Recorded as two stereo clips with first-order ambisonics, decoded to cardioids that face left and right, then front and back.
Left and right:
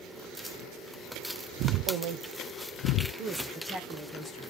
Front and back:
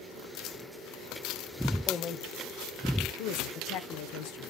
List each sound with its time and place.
1.9 s a woman speaking: 75° right, 0.7 m; by 4.4 s 5° right, 1.3 m